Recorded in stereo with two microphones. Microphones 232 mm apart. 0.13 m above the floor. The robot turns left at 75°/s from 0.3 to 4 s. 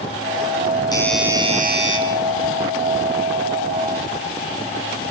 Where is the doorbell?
20° left, 6.5 m; by 2.0 s 65° right, 6.5 m.